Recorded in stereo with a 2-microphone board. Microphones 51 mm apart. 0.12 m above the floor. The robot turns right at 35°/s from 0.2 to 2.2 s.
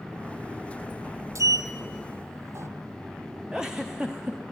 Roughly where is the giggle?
Centre.